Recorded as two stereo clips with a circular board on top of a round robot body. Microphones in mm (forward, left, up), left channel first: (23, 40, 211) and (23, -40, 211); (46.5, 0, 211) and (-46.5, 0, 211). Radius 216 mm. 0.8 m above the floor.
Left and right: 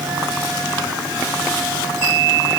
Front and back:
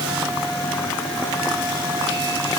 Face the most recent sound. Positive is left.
No sound to turn to.